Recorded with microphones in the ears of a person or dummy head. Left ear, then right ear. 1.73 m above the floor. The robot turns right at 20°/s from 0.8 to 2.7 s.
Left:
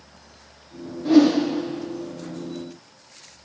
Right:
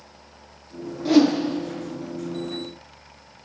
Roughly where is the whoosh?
Right.